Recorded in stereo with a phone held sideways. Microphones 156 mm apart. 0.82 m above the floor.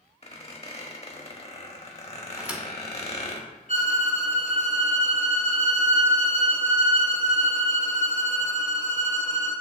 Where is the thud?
10° right (ahead or behind), 0.5 m.